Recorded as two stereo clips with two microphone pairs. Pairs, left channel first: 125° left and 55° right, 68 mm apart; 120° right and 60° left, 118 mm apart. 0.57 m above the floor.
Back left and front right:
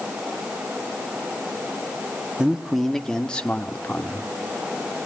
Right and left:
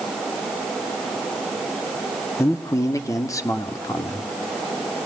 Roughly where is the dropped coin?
I don't hear a dropped coin.